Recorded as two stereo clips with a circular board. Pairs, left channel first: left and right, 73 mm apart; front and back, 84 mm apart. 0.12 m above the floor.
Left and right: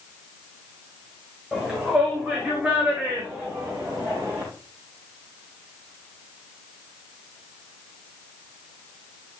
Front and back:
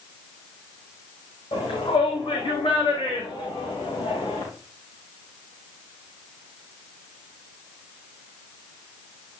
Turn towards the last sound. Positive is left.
turn(degrees=-20)